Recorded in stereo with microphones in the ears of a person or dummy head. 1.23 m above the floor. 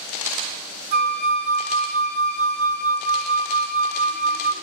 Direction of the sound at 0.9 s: 50° right (ahead or behind).